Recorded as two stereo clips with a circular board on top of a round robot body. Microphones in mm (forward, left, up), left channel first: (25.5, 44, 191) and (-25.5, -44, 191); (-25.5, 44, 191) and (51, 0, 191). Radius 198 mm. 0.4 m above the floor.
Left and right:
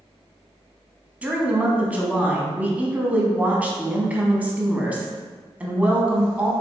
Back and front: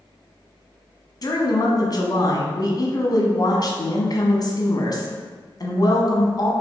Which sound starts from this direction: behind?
A woman speaking, at 1.2 s.